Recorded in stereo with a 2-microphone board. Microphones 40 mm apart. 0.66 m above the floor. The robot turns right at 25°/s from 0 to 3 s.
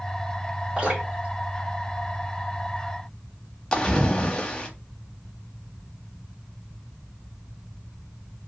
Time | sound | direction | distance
0.8 | dripping | 25° right (ahead or behind) | 1.6 m
3.7 | a splash | 15° left (ahead or behind) | 0.7 m